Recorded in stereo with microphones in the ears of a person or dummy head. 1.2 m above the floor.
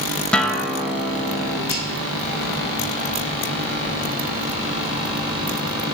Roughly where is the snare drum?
Right.